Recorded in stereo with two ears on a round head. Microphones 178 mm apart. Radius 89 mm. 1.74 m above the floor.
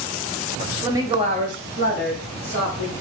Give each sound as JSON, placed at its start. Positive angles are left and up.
{"t": 0.7, "sound": "a woman speaking", "side_deg": -5, "distance_m": 0.5}